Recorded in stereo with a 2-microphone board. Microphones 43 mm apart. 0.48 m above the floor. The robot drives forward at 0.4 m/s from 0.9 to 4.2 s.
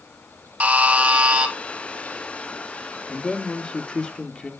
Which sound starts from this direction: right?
A buzzer, at 0.6 s.